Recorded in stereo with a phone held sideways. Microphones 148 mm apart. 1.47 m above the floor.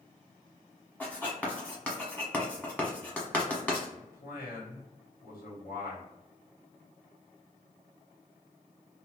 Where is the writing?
10° left (ahead or behind), 1.0 m.